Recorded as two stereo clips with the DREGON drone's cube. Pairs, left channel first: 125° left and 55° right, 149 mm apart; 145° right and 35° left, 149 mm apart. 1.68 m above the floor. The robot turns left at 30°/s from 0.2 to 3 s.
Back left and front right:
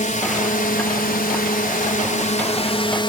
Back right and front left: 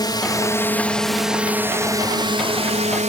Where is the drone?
155° left; by 3.1 s 70° left.